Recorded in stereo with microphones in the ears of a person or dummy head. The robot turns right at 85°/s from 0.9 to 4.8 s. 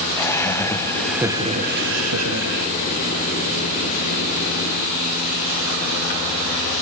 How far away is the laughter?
About 1.1 m.